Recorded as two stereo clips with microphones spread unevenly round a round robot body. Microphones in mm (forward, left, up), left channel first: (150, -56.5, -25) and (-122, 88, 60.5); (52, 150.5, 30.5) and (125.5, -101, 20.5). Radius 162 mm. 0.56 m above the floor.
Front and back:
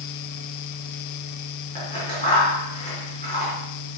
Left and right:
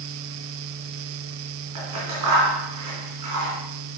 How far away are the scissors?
About 4 m.